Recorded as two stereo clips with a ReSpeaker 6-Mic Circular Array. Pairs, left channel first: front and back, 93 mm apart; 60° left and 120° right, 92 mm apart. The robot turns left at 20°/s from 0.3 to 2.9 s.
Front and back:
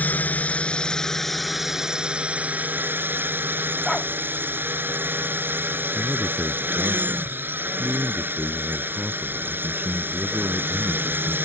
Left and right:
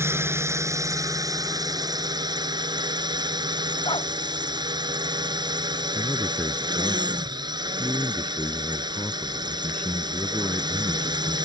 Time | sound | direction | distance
0.0 | a drone | 65° right | ?
3.9 | a dog barking | 85° left | ?
5.9 | a man speaking | 120° left | ?